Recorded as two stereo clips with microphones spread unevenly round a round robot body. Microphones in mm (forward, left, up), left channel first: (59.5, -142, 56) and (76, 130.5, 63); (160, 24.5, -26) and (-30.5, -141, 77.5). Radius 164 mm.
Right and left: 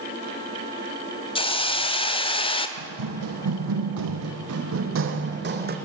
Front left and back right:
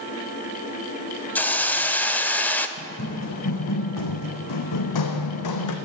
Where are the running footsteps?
100° left, 1.5 m; by 5.8 s 30° left, 1.8 m.